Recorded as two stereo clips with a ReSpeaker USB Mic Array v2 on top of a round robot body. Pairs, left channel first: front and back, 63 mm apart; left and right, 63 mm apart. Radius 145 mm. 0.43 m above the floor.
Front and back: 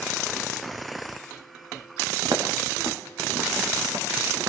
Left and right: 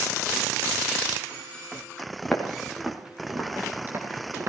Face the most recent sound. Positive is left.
turn(degrees=-140)